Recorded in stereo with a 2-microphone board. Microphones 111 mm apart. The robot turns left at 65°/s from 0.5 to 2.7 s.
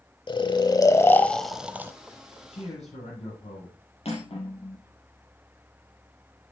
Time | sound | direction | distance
0.3 | snoring | 65° left | 0.8 m
2.5 | a man speaking | 65° left (ahead or behind) | 7 m
4.0 | cutlery clinking | 65° left (ahead or behind) | 4 m